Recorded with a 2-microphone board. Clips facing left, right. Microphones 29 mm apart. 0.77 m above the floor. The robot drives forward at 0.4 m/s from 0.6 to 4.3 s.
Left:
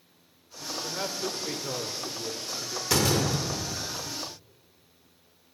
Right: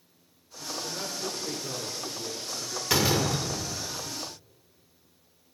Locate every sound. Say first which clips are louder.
0.8 s a man speaking: left 3 dB; 40° left (ahead or behind), 2 m; by 2.8 s 55° left (ahead or behind), 1.6 m
2.9 s a door slam: even; 20° right (ahead or behind), 1.8 m; by 4.1 s 25° right (ahead or behind), 1.3 m